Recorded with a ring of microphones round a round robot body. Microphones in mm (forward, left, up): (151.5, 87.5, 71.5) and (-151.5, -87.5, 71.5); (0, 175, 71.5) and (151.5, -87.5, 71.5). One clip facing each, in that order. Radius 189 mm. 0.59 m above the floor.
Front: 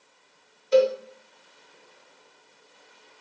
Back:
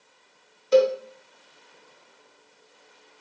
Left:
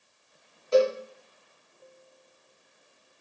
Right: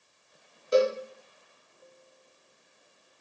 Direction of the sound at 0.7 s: 130° right.